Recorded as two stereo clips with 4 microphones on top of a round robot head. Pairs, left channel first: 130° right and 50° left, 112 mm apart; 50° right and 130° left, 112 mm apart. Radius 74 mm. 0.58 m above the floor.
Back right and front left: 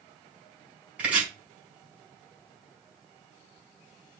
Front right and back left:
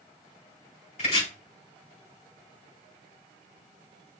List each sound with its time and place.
1.0 s chopping: 30° right, 4.5 m